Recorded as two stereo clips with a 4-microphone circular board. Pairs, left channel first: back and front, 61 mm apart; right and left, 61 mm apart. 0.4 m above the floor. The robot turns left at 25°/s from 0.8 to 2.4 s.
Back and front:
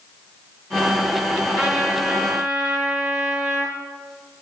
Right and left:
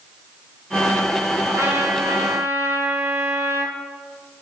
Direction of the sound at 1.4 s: 90° left.